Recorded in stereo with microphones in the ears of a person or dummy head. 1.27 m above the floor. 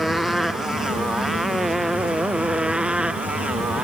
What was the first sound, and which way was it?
A motorcycle, centre (ahead or behind).